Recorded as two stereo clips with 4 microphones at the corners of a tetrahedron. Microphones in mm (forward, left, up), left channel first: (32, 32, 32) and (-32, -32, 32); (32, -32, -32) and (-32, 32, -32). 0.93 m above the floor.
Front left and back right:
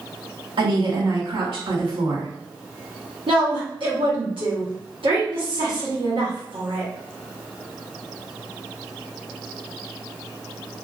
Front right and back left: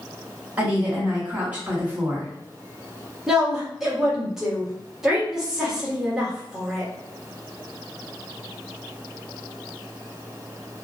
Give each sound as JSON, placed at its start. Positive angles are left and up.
{"t": 0.6, "sound": "a woman speaking", "azimuth_deg": -150, "distance_m": 1.6}
{"t": 3.3, "sound": "a woman speaking", "azimuth_deg": -140, "distance_m": 1.4}